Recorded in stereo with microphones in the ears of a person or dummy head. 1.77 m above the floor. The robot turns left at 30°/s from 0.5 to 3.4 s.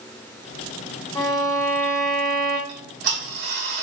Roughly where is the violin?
Ahead left.